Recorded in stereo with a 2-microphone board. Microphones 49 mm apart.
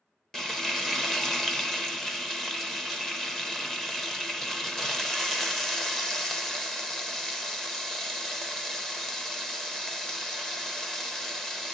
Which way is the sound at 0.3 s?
10° left (ahead or behind).